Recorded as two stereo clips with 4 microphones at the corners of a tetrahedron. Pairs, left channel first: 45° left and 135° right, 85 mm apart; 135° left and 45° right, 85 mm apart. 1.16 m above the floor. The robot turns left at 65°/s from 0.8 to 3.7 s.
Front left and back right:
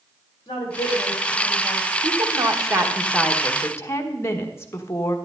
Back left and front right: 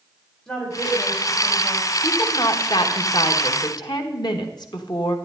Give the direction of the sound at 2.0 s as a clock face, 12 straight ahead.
5 o'clock.